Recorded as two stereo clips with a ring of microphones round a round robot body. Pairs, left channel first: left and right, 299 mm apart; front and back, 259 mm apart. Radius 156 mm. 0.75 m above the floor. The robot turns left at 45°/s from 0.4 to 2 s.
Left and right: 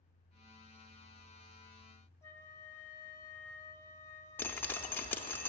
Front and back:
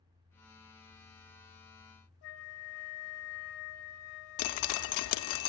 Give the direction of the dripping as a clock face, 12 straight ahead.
12 o'clock.